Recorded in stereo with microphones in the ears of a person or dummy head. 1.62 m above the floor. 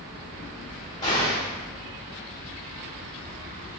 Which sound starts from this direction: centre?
An explosion, at 1.0 s.